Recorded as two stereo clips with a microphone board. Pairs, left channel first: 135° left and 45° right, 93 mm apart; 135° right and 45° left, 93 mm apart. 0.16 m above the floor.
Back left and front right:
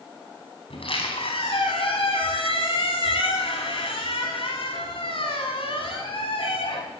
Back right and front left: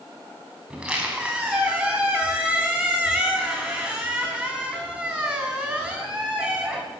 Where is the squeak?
125° left, 4.5 m.